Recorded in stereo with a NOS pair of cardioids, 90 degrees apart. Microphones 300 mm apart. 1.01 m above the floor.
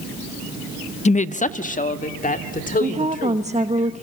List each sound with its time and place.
1.1 s a woman speaking: 25° left, 0.8 m
2.8 s a woman speaking: 25° right, 1.1 m